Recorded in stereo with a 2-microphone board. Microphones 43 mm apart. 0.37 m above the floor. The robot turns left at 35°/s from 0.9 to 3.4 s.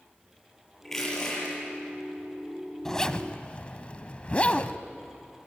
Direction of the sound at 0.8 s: 5° left (ahead or behind).